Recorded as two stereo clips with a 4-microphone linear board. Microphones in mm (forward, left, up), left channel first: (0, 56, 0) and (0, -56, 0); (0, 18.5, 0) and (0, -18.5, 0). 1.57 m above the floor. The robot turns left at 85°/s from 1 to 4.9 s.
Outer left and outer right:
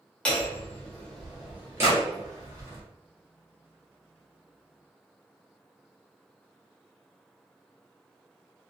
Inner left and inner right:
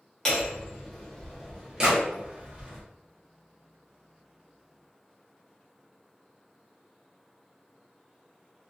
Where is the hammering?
20° left, 1.1 m; by 2.8 s 130° right, 1.1 m.